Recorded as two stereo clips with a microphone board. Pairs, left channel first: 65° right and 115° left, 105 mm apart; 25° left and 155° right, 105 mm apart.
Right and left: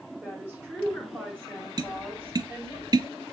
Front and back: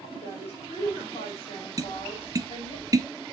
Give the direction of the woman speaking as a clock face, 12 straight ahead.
11 o'clock.